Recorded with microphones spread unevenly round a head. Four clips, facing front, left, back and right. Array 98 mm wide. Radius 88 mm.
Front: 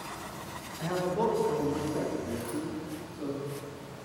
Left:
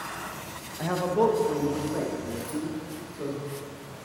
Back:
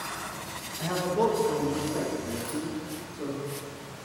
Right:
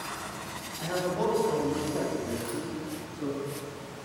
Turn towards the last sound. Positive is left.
turn(degrees=180)